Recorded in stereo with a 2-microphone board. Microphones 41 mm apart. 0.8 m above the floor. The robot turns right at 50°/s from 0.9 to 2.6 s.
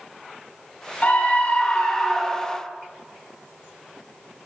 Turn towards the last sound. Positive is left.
turn(degrees=-170)